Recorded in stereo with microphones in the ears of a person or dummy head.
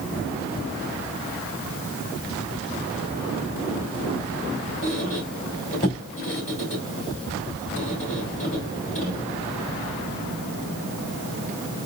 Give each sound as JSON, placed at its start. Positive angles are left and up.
{"t": 4.8, "sound": "a squeak", "side_deg": 35, "distance_m": 2.5}